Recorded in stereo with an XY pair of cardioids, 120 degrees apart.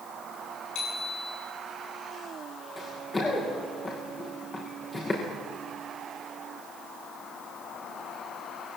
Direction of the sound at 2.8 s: 20° left.